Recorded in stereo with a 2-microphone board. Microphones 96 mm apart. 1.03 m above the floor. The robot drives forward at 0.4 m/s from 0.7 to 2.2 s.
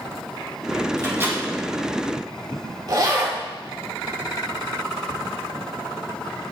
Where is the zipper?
50° right (ahead or behind), 2.5 m.